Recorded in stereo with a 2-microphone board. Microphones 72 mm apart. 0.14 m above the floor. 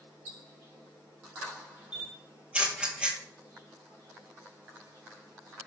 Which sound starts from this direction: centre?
A camera shutter, at 1.9 s.